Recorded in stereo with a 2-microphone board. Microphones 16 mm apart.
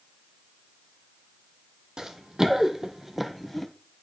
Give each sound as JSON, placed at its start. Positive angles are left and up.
{"t": 2.0, "sound": "running footsteps", "side_deg": -65, "distance_m": 1.1}